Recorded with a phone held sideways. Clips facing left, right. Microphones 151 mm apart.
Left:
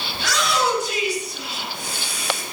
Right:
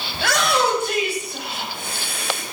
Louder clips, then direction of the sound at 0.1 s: Right 3 dB; 60° right (ahead or behind).